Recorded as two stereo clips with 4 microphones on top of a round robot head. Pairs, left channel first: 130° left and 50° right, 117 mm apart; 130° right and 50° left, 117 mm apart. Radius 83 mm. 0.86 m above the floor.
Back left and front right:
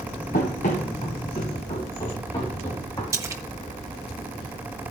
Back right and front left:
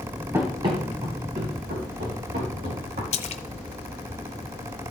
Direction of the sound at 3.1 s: 110° right.